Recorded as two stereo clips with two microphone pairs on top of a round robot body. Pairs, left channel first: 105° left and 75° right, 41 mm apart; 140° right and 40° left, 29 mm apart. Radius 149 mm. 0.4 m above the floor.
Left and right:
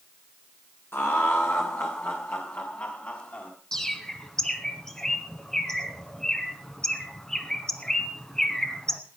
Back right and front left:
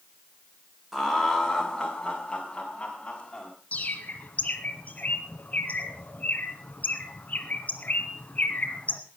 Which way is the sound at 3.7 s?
Straight behind.